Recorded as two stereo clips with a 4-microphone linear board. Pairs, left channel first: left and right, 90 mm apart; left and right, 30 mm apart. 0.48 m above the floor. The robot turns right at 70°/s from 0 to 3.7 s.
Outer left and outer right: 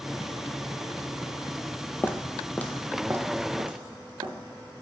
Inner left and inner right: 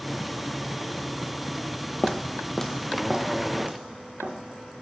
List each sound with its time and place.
2.0 s footsteps: 20° left (ahead or behind), 0.5 m; by 4.3 s 75° right (ahead or behind), 1.7 m